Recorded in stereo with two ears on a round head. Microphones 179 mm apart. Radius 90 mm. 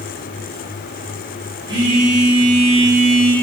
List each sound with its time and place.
1.7 s a phone buzzing: 20° right (ahead or behind), 7 m